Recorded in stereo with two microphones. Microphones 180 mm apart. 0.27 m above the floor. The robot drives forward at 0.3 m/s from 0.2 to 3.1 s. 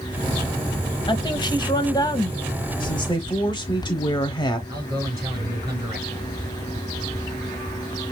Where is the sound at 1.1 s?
25° left (ahead or behind), 1.0 m; by 2.4 s 20° left (ahead or behind), 1.2 m.